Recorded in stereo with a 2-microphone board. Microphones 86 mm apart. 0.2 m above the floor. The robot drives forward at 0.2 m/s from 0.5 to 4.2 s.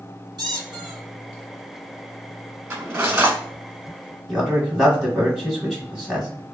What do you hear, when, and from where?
0.4 s a squeak: 50° right (ahead or behind), 1.2 m
2.7 s cutlery clinking: 25° right (ahead or behind), 1.4 m
4.3 s a man speaking: 5° right (ahead or behind), 1.0 m